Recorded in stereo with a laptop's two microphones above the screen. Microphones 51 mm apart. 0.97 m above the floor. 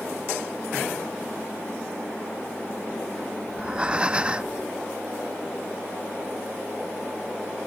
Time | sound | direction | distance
3.5 | breathing | 20° right (ahead or behind) | 0.8 m